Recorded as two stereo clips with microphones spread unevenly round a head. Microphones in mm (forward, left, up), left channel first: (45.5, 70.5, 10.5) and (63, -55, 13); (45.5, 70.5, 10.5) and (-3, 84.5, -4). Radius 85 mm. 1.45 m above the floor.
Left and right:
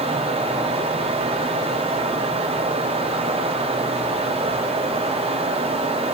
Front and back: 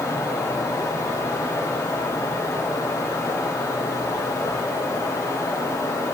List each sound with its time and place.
0.0 s a fan: 65° right, 1.5 m